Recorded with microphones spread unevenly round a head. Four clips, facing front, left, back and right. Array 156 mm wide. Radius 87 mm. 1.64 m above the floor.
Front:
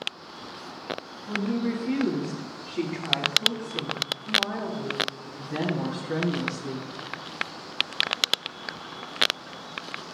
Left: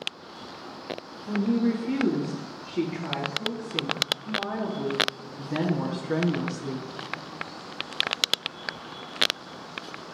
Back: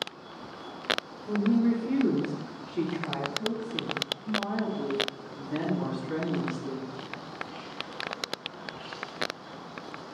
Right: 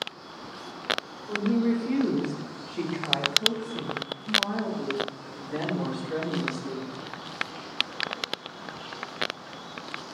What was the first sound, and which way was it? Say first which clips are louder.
A woman speaking: left 1 dB, back 3 dB; 135° left.